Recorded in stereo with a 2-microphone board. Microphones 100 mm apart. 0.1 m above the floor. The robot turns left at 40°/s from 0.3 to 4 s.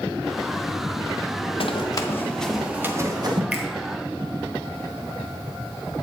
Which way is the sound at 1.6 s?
60° left (ahead or behind).